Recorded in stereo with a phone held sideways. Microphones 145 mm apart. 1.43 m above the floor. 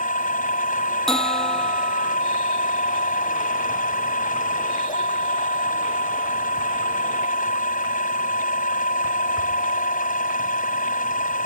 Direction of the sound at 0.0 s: 70° left (ahead or behind).